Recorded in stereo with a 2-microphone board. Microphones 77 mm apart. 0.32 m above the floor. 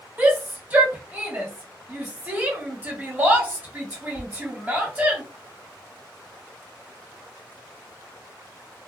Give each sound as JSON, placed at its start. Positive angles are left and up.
{"t": 0.2, "sound": "a shout", "side_deg": -20, "distance_m": 1.1}